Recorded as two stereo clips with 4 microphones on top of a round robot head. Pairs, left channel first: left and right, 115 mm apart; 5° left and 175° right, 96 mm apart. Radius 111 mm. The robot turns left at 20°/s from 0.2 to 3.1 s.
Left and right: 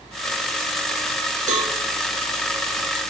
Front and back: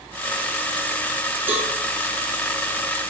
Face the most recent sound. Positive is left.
turn(degrees=-135)